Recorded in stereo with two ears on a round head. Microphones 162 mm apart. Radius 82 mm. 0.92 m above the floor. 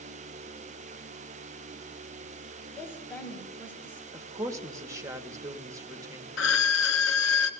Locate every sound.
2.8 s a woman speaking: 15° left (ahead or behind), 5 m
4.1 s a woman speaking: 15° right (ahead or behind), 1.0 m
6.4 s a violin: 85° left, 1.0 m